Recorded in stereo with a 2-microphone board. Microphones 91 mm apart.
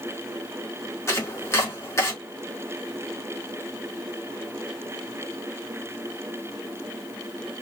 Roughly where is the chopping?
Left.